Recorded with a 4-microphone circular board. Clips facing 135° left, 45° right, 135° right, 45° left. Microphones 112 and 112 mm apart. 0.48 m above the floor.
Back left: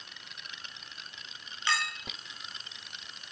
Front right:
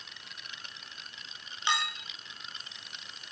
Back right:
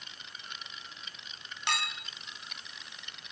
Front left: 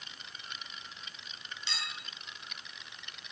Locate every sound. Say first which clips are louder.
1.7 s a clink: front right 1 dB, back right 10 dB; 115° right, 3 m